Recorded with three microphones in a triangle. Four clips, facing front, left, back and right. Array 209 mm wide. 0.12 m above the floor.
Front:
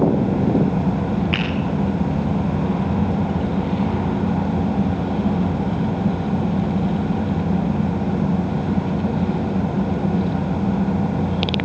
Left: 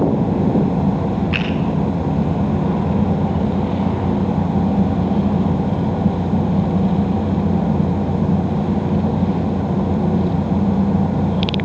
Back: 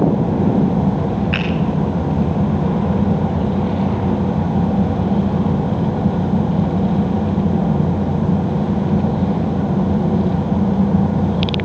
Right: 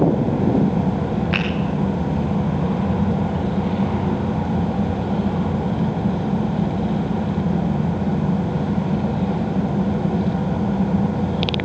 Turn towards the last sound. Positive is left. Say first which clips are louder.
# left 1 dB, back 2 dB
turn(degrees=-70)